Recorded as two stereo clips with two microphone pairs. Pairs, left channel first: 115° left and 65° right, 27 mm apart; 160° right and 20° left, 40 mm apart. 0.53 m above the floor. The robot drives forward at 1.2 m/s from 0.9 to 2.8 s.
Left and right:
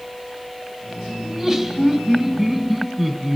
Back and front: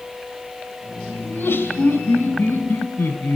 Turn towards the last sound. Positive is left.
turn(degrees=-165)